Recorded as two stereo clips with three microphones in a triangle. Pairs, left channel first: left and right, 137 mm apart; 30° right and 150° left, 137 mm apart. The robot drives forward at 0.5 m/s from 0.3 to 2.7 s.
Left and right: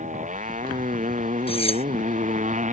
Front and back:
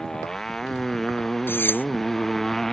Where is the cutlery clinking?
45° left.